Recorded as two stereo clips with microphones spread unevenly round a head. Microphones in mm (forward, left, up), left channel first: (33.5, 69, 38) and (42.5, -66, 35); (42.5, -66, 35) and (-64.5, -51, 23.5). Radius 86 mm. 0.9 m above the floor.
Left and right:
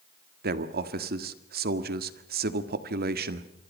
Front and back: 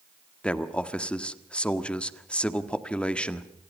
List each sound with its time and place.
0.4 s a man speaking: 90° right, 1.7 m